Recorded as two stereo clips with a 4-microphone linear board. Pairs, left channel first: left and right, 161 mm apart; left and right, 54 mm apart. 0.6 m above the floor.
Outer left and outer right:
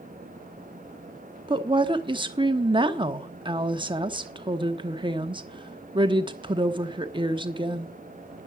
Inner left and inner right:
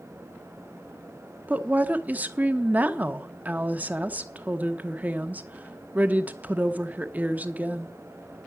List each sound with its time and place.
1.5 s a woman speaking: 30° right (ahead or behind), 1.0 m